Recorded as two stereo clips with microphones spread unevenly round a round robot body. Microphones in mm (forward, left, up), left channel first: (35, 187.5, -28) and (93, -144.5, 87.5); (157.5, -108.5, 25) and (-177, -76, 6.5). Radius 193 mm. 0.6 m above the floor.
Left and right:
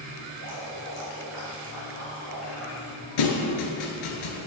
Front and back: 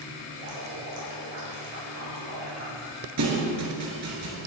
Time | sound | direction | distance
0.4 | dripping | 160° left | 5 m
3.2 | a thud | 120° left | 2.5 m